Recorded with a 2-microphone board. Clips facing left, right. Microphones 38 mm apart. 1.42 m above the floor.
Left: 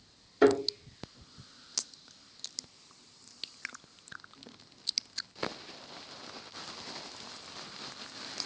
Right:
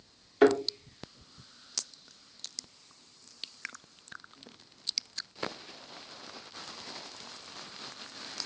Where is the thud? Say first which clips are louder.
Right 1 dB; 55° right (ahead or behind), 1.4 m.